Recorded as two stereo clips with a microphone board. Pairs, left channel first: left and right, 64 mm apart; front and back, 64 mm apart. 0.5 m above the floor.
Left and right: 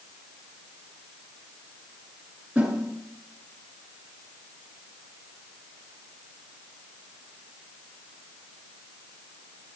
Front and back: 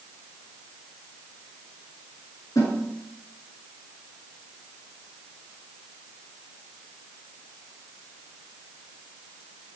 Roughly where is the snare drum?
Ahead.